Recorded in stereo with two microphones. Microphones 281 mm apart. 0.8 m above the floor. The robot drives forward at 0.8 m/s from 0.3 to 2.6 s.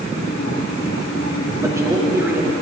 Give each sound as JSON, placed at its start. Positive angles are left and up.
{"t": 1.6, "sound": "a man speaking", "side_deg": -10, "distance_m": 1.9}